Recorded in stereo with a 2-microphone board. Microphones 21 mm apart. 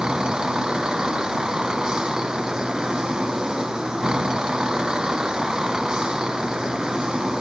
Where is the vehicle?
40° right (ahead or behind).